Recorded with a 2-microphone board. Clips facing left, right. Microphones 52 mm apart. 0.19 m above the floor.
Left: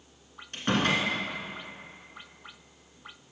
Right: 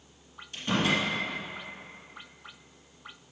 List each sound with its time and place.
0.5 s a door slam: 55° left (ahead or behind), 1.6 m